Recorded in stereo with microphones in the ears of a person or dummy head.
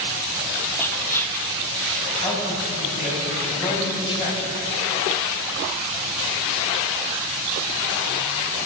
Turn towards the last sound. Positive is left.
turn(degrees=30)  # may be behind; listen again after turning